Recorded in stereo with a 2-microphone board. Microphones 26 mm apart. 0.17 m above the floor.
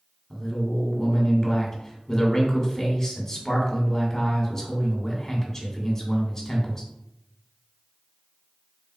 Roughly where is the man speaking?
Left.